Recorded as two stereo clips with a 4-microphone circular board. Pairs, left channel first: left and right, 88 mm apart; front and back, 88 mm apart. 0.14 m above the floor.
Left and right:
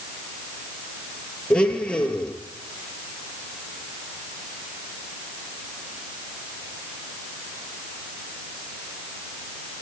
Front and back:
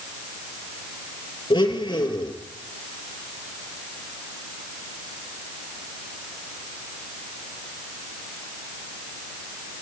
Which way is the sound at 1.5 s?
15° left.